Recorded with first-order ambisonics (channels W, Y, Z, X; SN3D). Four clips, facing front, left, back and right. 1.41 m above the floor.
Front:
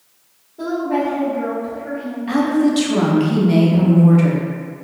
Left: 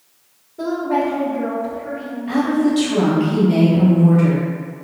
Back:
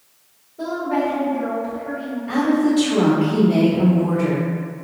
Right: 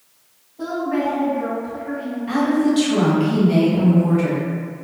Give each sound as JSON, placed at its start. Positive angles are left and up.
{"t": 0.6, "sound": "a woman speaking", "azimuth_deg": 70, "distance_m": 1.5}
{"t": 2.3, "sound": "a woman speaking", "azimuth_deg": 0, "distance_m": 0.8}